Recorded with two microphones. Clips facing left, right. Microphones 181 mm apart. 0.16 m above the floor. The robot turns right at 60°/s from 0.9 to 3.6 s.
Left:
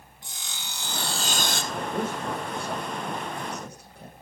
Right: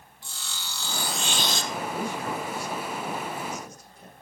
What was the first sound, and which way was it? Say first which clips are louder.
Sawing: right 1 dB; 20° left.